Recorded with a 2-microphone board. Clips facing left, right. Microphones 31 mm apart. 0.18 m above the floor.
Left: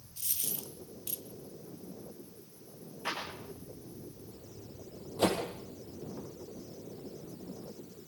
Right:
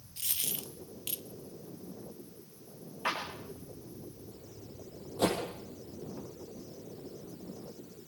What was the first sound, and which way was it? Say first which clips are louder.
A dropped coin: right 3 dB; 65° right (ahead or behind).